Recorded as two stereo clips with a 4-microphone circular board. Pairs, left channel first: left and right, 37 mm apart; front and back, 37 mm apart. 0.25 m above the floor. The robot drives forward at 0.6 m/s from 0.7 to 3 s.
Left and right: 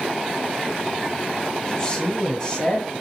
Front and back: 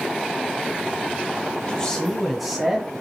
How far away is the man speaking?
About 1.1 m.